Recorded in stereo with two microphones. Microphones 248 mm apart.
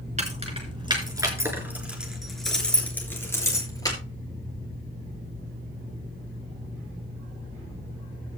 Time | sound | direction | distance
0.2 | keys jangling | 30° right (ahead or behind) | 4 m